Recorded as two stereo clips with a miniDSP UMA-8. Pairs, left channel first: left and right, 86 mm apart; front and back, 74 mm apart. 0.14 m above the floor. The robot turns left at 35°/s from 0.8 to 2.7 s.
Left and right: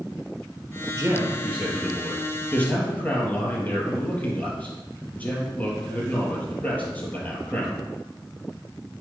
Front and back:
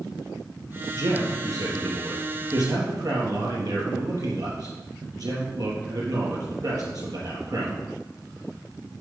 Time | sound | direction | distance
0.9 | a man speaking | 140° right | 3.5 m